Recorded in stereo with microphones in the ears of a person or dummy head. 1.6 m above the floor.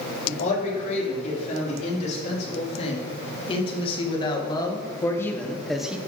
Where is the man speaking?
40° left (ahead or behind), 5 m; by 6.0 s 10° right (ahead or behind), 1.1 m.